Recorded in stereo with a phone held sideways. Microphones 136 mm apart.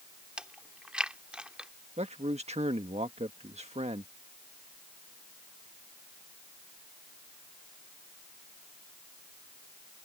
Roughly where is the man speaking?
Right.